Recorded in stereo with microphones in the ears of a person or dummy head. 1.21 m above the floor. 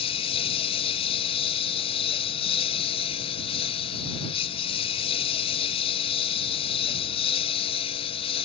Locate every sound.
0.0 s a lawn mower: 30° left (ahead or behind)